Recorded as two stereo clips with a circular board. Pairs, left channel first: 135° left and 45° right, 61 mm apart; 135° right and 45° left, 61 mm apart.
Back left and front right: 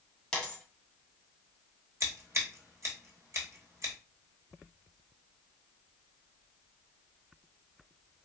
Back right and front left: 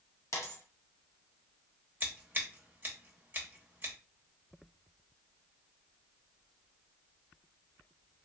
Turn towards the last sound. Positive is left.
turn(degrees=-10)